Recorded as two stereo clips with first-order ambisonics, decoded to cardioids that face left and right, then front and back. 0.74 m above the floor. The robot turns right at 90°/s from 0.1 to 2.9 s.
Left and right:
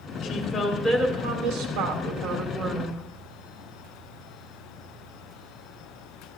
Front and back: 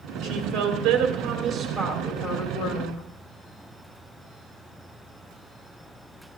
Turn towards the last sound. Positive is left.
turn(degrees=10)